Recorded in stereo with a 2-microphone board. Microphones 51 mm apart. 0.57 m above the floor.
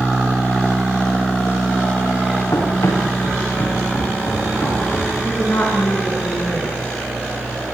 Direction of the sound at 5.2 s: 55° left (ahead or behind).